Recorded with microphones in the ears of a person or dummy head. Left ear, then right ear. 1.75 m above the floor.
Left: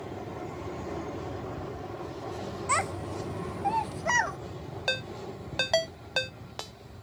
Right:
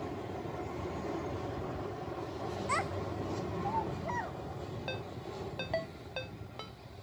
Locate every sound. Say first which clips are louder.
2.7 s a child speaking: left 6 dB; 15° left (ahead or behind); by 4.4 s 60° left (ahead or behind)
4.9 s a ringtone: left 12 dB; 65° left (ahead or behind)